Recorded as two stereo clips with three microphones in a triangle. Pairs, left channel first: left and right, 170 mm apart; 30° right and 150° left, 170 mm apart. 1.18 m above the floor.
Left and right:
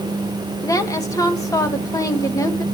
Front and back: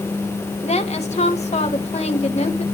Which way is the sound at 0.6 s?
20° left.